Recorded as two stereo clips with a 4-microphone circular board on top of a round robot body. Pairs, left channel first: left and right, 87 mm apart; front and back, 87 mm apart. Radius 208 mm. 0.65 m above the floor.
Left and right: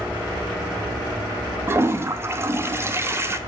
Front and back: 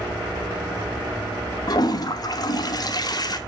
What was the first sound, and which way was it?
A toilet flushing, 35° right.